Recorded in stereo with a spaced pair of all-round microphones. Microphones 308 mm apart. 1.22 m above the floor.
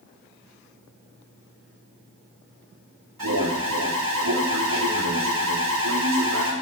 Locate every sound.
3.2 s an alarm: 85° right, 2 m